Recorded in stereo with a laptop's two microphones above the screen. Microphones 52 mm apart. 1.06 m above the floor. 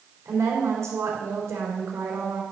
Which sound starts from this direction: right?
A woman speaking, at 0.2 s.